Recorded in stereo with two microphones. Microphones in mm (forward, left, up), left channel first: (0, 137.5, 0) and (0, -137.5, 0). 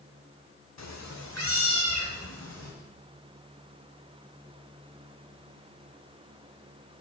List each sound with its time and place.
0.8 s a cat meowing: 70° left (ahead or behind), 0.6 m; by 2.7 s 80° left, 3.5 m